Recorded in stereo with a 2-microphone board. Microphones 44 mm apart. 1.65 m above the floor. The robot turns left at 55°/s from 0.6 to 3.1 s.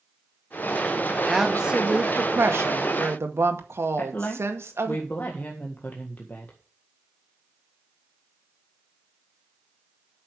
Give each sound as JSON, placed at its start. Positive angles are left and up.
{"t": 1.3, "sound": "a woman speaking", "azimuth_deg": 0, "distance_m": 1.9}
{"t": 4.0, "sound": "a woman speaking", "side_deg": 40, "distance_m": 1.7}